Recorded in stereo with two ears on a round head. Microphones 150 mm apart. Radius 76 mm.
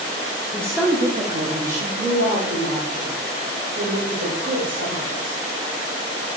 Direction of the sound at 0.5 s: 10° left (ahead or behind).